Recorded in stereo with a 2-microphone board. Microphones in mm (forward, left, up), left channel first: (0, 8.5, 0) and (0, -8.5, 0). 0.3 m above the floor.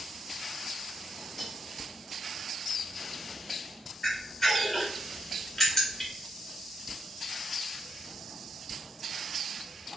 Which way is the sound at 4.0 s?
35° left (ahead or behind).